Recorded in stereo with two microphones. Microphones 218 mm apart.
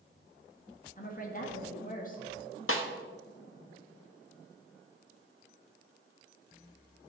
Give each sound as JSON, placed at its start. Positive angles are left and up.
{"t": 1.0, "sound": "a woman speaking", "side_deg": 40, "distance_m": 1.8}
{"t": 2.7, "sound": "a snare drum", "side_deg": 75, "distance_m": 1.1}